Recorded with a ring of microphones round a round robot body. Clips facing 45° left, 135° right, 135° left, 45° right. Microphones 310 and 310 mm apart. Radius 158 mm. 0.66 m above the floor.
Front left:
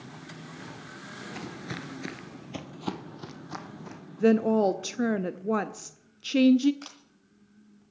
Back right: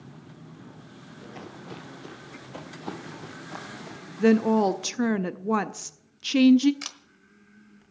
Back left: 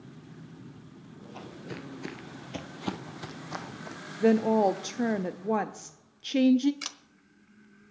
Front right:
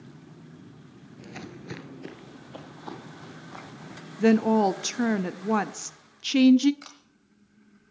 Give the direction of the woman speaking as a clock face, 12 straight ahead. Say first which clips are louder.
Back right 2 dB, front right 2 dB; 2 o'clock.